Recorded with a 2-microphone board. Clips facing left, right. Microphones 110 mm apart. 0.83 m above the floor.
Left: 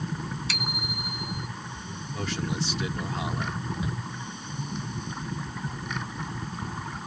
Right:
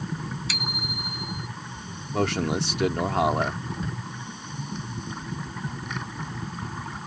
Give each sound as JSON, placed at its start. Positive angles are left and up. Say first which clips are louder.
{"t": 0.5, "sound": "a bicycle bell", "louder": "even", "side_deg": 0}
{"t": 2.1, "sound": "a man speaking", "louder": "right 7 dB", "side_deg": -70}
{"t": 3.8, "sound": "a shout", "louder": "left 1 dB", "side_deg": 10}